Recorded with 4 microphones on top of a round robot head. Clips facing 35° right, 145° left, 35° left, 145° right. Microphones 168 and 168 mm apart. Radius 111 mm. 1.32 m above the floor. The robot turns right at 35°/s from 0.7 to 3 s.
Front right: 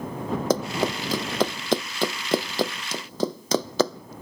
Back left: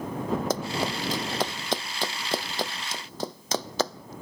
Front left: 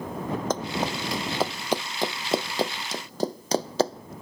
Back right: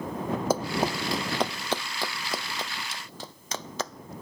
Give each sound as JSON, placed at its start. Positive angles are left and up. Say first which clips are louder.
{"t": 0.5, "sound": "running footsteps", "louder": "front right 4 dB, back right 4 dB", "azimuth_deg": -60}